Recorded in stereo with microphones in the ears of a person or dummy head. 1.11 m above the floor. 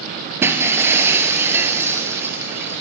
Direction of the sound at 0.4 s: 15° right (ahead or behind).